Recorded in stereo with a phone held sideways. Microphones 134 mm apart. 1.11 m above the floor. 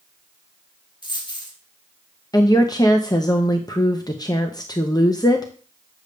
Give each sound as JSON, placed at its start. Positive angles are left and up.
{"t": 1.0, "sound": "a dropped coin", "side_deg": 35, "distance_m": 2.0}
{"t": 2.3, "sound": "a woman speaking", "side_deg": 30, "distance_m": 0.7}